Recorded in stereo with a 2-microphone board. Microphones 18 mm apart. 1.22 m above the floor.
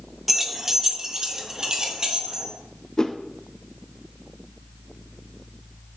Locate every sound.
0.3 s keys jangling: 10° right (ahead or behind), 1.0 m; by 2.5 s 40° right (ahead or behind), 2 m
3.0 s a whoosh: 35° left (ahead or behind), 0.7 m